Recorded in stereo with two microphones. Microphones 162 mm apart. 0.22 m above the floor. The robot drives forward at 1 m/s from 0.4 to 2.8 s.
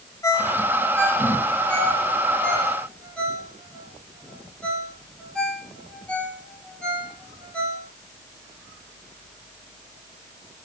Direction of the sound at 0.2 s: 20° left (ahead or behind).